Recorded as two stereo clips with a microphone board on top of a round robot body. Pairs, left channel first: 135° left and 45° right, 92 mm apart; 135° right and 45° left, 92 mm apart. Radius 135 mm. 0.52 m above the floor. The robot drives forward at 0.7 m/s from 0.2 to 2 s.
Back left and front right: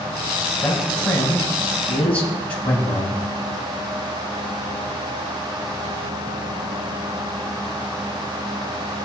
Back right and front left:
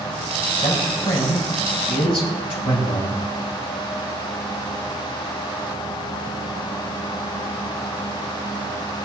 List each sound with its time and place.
0.6 s a man speaking: 145° right, 4.5 m; by 3.1 s 150° right, 5.5 m